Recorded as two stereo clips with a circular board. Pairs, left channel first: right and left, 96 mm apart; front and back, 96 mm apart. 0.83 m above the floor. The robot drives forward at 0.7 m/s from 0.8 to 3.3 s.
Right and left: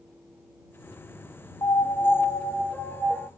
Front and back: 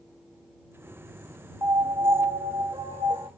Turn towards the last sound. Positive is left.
turn(degrees=-165)